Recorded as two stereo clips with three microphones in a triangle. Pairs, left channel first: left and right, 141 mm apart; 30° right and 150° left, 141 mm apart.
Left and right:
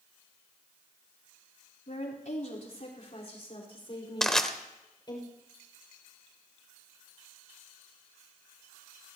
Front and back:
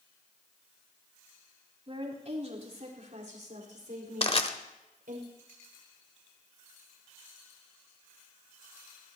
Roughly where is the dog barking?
No dog barking in this recording.